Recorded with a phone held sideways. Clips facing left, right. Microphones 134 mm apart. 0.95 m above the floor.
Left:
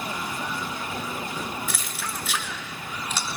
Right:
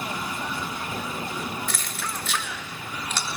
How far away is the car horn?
No car horn in this recording.